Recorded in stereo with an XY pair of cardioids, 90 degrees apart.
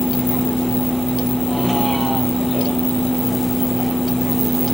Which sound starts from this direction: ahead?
A vehicle, at 0.0 s.